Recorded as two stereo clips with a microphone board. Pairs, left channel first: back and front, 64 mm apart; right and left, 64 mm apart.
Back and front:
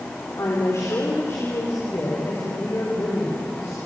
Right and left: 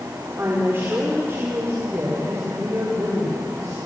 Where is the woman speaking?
145° left, 4 m; by 3.8 s 125° left, 6.5 m.